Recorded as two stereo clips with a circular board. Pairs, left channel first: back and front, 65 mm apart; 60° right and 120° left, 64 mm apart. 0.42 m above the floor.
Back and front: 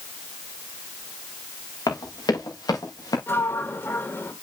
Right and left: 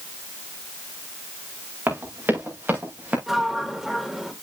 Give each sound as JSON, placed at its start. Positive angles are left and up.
{"t": 1.9, "sound": "running footsteps", "azimuth_deg": 175, "distance_m": 6.5}
{"t": 3.3, "sound": "a sliding door", "azimuth_deg": -160, "distance_m": 1.5}